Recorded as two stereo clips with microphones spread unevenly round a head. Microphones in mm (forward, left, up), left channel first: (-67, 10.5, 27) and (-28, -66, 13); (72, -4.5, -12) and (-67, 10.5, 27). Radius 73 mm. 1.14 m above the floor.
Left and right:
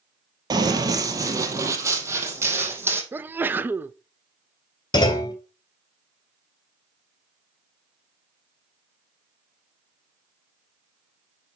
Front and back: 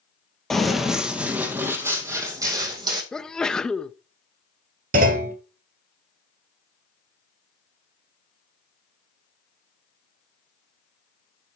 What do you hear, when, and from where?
0.5 s running footsteps: 105° right, 1.8 m; by 3.0 s 130° right, 3 m
3.1 s a sneeze: 55° right, 0.5 m
4.9 s a clunk: 155° left, 2 m